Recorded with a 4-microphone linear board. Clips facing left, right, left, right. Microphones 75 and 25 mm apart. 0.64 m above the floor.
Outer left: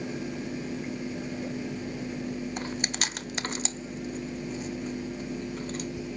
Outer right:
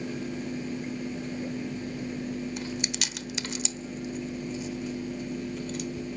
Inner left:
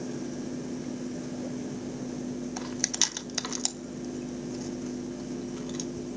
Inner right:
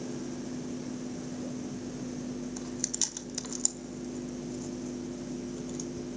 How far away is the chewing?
About 0.6 m.